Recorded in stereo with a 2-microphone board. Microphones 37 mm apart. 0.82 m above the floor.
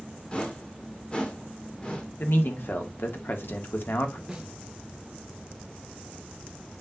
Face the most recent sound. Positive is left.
turn(degrees=-10)  # may be behind; listen again after turning